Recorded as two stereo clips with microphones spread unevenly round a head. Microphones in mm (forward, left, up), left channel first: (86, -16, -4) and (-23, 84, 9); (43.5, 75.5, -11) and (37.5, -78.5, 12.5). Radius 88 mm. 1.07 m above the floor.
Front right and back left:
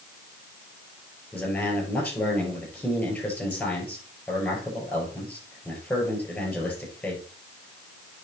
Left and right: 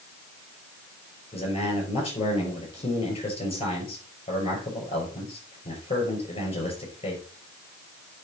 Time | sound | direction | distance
1.3 | a man speaking | 35° left | 5.5 m